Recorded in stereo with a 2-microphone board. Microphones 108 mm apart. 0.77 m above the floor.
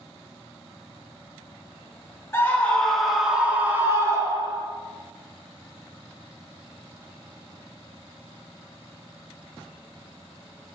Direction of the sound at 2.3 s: 25° left (ahead or behind).